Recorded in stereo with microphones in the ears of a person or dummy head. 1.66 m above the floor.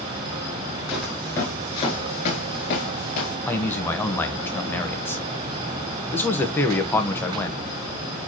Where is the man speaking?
10° left (ahead or behind), 1.2 m.